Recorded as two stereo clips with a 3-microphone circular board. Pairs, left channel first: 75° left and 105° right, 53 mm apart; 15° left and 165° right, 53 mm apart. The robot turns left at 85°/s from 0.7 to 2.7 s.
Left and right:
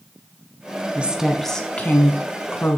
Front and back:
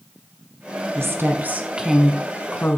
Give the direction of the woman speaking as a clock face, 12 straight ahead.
5 o'clock.